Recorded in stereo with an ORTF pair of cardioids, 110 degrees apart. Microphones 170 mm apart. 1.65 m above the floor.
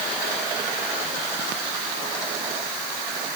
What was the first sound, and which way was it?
Only background noise.